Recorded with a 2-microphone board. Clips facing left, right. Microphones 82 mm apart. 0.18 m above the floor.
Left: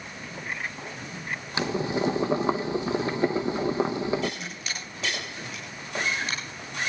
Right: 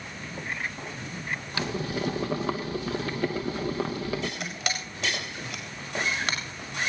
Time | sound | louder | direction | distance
1.6 | boiling | left 5 dB | 25° left (ahead or behind) | 1.0 m
4.4 | a camera shutter | right 4 dB | 90° right | 4.5 m